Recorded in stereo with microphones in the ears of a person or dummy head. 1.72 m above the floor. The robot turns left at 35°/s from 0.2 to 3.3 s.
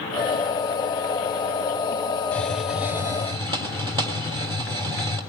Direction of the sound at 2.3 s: 5° left.